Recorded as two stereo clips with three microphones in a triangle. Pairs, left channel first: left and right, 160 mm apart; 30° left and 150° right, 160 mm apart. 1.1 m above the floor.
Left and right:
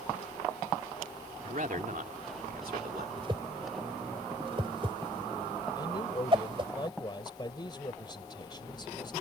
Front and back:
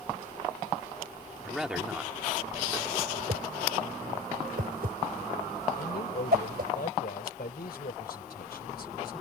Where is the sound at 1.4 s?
60° right; by 3.1 s 80° right.